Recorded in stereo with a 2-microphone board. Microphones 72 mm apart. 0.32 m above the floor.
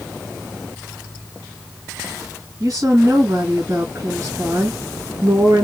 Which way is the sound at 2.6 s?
50° right (ahead or behind).